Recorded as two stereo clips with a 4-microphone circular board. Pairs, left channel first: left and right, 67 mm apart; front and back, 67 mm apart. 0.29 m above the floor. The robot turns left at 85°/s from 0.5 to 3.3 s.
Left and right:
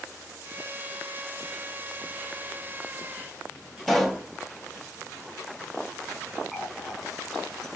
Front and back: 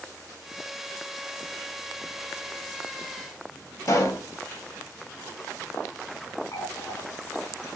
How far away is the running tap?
About 1.7 m.